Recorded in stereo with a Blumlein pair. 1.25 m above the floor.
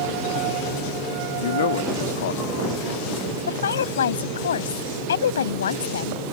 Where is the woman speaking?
65° left.